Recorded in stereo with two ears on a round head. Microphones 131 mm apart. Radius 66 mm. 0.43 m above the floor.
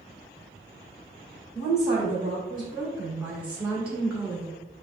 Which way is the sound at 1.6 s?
5° right (ahead or behind).